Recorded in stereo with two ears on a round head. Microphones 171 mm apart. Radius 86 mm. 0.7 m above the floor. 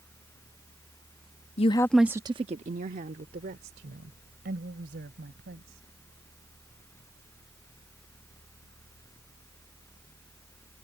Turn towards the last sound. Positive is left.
turn(degrees=-60)  # may be behind; listen again after turning